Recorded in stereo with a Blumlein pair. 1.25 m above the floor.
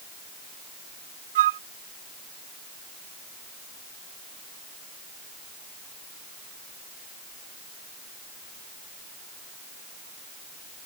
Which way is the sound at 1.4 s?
55° right.